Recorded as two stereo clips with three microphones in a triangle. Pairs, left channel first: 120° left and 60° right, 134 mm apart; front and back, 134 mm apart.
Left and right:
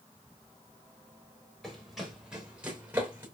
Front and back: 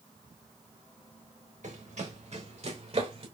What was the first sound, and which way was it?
Running footsteps, 150° right.